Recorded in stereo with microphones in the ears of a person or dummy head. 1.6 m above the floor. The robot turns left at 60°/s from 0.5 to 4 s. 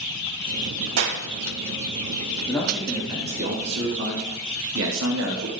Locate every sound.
1.0 s a clap: 80° right, 2.5 m; by 1.2 s 65° right (ahead or behind), 2.5 m
2.5 s a man speaking: 15° left, 3.5 m; by 5.5 s 75° right, 3.5 m